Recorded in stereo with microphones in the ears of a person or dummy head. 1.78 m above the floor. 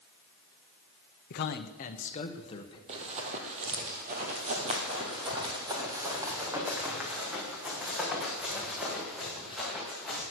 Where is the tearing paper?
No tearing paper in this recording.